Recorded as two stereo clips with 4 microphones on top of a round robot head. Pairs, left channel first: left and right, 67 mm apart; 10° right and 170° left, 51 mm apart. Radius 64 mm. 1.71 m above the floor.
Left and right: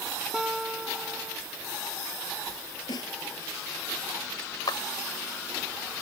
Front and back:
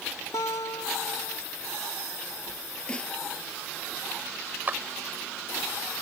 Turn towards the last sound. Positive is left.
turn(degrees=115)